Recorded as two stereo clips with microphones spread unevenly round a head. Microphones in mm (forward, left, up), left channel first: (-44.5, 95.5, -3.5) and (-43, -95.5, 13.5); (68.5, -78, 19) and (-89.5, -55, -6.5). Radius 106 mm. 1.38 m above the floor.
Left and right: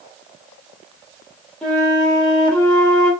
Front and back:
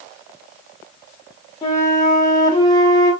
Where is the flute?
5° right, 1.1 m.